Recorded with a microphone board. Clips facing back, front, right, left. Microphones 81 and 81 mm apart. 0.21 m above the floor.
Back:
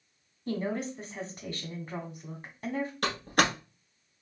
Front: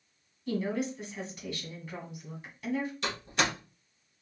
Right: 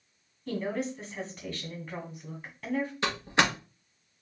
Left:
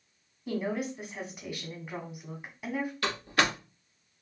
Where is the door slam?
155° right, 1.8 m.